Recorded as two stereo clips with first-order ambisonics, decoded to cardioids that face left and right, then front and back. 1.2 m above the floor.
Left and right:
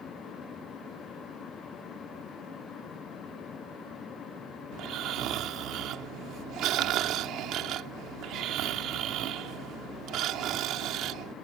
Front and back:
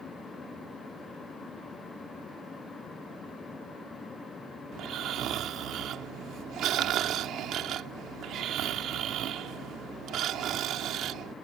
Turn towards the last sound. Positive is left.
turn(degrees=-130)